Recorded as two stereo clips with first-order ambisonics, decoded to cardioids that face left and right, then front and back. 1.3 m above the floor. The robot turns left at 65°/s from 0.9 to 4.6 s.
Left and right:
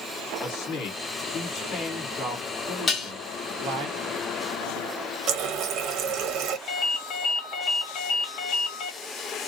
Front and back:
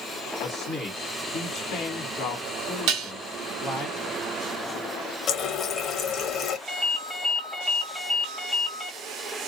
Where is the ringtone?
115° left, 1.1 m.